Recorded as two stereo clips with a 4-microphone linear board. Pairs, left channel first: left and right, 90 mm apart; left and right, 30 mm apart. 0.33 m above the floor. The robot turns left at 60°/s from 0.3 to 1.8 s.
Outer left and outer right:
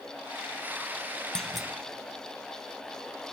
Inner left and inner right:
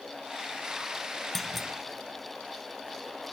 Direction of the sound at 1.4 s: 5° left (ahead or behind).